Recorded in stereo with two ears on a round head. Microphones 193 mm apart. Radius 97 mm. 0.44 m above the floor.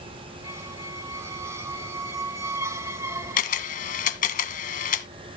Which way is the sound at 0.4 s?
15° right (ahead or behind).